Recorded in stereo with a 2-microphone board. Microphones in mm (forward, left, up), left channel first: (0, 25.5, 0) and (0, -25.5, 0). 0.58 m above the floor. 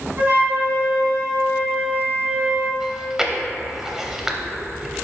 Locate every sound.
0.2 s a flute: 30° right (ahead or behind), 2.0 m
2.8 s chewing: 10° right (ahead or behind), 0.6 m